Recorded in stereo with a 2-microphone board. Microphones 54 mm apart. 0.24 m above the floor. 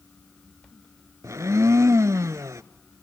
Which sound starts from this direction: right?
A blender, at 1.2 s.